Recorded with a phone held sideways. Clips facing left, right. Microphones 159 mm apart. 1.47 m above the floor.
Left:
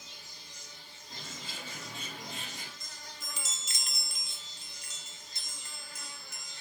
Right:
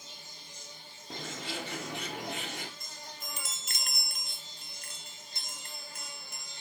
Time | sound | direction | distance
0.0 | an insect | 25° right (ahead or behind) | 4 m
1.1 | a bird | 75° right (ahead or behind) | 1.3 m
2.8 | a chime | 55° right (ahead or behind) | 0.7 m